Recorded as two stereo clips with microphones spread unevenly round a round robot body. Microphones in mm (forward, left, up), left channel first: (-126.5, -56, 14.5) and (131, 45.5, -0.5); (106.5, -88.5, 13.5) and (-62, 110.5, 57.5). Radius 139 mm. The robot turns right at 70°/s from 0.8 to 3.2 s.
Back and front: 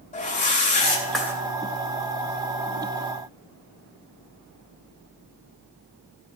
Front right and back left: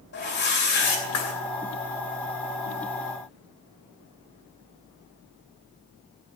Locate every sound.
0.1 s a whoosh: 95° right, 2.5 m; by 1.3 s 55° right, 2.5 m